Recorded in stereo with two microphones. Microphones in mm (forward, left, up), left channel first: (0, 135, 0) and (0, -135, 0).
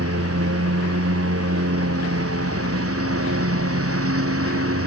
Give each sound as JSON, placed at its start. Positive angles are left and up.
{"t": 0.0, "sound": "a lawn mower", "side_deg": -55}